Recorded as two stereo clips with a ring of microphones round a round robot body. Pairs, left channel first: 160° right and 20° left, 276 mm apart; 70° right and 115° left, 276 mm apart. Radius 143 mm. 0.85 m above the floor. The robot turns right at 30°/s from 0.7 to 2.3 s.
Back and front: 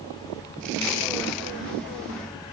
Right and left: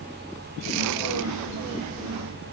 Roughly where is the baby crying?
No baby crying in this recording.